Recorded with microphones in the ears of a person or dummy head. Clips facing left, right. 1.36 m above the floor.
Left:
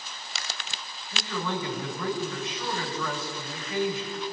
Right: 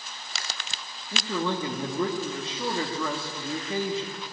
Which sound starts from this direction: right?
A man speaking, at 1.1 s.